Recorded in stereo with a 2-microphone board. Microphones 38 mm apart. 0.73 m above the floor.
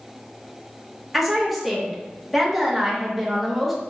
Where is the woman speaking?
Centre (ahead or behind), 1.0 m.